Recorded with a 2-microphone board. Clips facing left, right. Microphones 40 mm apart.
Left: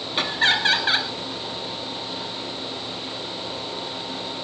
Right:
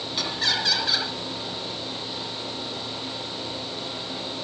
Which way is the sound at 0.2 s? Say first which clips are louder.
Left 6 dB; 35° left (ahead or behind).